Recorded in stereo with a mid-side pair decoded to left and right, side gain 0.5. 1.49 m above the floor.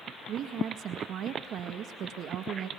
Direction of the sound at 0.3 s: 65° right.